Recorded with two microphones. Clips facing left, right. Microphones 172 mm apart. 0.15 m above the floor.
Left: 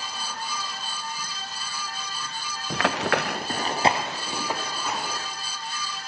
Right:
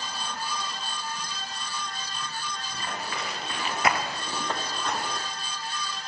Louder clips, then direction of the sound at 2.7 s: Left 13 dB; 80° left.